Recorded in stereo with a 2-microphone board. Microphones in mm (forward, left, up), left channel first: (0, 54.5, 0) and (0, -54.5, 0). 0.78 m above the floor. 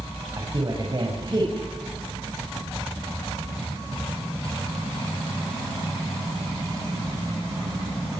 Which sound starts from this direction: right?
A man speaking, at 0.4 s.